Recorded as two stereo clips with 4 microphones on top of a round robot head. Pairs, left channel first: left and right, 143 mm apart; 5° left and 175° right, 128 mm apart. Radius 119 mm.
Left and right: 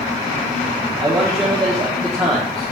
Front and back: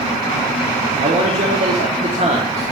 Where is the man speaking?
175° left, 1.2 m.